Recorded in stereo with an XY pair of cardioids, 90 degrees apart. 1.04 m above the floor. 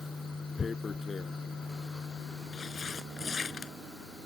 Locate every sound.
0.6 s tearing paper: 40° left